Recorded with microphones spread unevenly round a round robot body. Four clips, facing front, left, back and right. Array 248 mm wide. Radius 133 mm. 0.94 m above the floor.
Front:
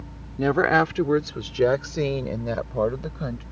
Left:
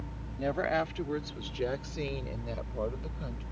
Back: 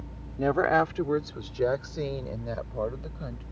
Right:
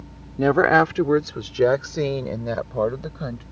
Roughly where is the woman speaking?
Ahead right.